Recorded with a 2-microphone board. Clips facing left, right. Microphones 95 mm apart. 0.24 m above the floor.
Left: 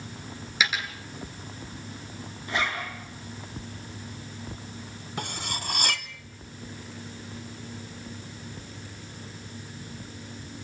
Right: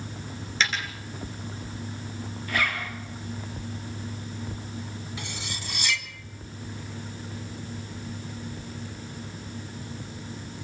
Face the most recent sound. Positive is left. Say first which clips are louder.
# left 3 dB
turn(degrees=55)  # may be behind; listen again after turning